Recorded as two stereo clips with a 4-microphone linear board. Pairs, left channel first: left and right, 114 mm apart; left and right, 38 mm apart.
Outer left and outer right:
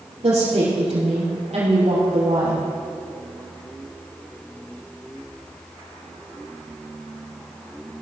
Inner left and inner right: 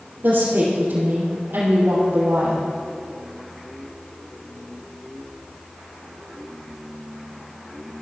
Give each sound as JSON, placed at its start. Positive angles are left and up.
{"t": 0.2, "sound": "a woman speaking", "side_deg": -65, "distance_m": 4.0}